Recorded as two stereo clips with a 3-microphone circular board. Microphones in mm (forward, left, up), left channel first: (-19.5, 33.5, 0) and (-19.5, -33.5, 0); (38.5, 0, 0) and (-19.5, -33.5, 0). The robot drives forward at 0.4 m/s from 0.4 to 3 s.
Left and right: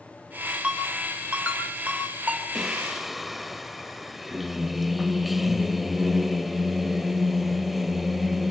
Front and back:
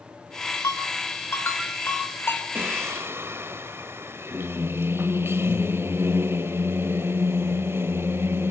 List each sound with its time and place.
0.6 s a ringtone: 20° right, 7 m
2.5 s singing: straight behind, 1.2 m